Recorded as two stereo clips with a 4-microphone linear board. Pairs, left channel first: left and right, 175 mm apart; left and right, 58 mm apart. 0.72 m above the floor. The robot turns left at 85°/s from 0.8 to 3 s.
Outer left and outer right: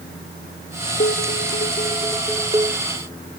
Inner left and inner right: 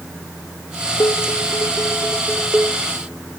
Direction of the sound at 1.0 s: 115° left.